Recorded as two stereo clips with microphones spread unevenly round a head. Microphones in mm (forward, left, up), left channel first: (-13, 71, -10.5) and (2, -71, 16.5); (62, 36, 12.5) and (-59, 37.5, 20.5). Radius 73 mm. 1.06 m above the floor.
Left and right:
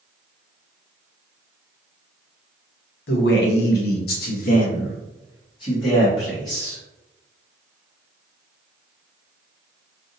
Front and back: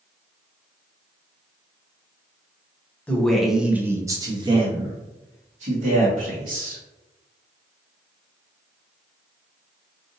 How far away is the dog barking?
I don't hear a dog barking.